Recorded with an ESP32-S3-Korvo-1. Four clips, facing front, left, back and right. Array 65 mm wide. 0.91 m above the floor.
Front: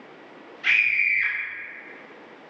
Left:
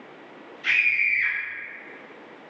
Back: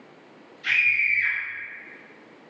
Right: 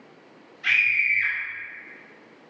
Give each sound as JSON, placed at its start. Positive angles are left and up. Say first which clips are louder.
{"t": 0.6, "sound": "a scream", "louder": "right 1 dB, front 1 dB", "azimuth_deg": -20, "distance_m": 1.5}